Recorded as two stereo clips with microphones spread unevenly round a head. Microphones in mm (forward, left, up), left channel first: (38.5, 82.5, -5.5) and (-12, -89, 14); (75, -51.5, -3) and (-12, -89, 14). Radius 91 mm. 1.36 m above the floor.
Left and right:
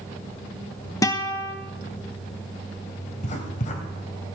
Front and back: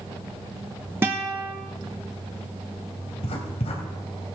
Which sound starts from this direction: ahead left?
Writing, at 3.1 s.